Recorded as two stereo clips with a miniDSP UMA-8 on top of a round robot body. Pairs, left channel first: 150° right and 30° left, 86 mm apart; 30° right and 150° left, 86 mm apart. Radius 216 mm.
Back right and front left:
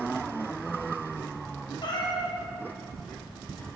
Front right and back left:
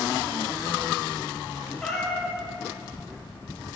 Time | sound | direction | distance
1.8 | a cat meowing | 115° right | 1.3 m